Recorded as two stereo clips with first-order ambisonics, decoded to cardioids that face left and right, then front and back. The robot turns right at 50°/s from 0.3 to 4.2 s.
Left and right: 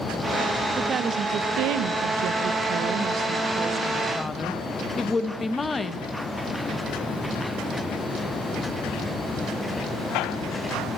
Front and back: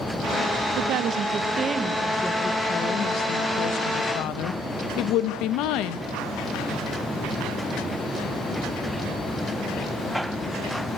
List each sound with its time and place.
0.8 s a woman speaking: 160° right, 1.2 m; by 6.0 s 15° left, 1.2 m